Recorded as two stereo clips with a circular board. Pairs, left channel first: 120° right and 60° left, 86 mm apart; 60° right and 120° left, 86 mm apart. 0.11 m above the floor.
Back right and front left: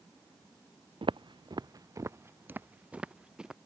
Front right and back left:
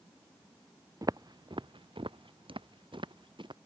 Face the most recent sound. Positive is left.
turn(degrees=140)